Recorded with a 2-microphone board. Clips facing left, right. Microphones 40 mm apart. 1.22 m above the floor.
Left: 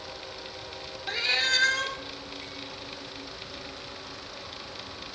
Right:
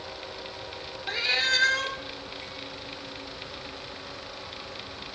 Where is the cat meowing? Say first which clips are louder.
Right 1 dB; 5° right (ahead or behind), 1.5 m.